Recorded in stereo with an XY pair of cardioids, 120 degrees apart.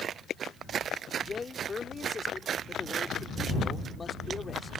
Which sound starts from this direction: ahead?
A man speaking, at 1.2 s.